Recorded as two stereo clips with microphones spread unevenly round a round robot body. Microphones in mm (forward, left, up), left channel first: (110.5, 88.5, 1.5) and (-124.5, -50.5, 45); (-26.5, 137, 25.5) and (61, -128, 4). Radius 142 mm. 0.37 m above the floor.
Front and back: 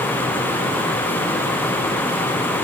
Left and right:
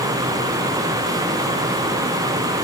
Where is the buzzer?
No buzzer in this recording.